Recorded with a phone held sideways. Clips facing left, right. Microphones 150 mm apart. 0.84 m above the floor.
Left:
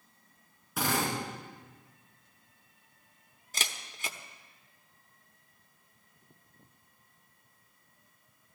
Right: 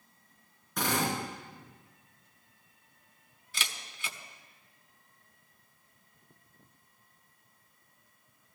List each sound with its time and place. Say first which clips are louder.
0.8 s a drill: even; 5° left (ahead or behind), 6 m
3.5 s a camera shutter: left 1 dB; 45° left (ahead or behind), 0.9 m